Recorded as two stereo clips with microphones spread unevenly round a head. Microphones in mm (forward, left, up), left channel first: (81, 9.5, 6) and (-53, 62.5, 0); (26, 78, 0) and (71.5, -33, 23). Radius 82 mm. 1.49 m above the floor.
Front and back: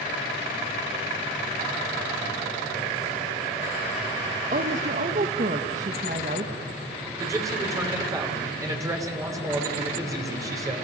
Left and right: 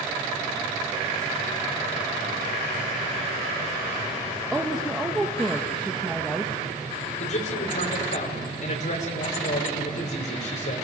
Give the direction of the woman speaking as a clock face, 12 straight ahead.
5 o'clock.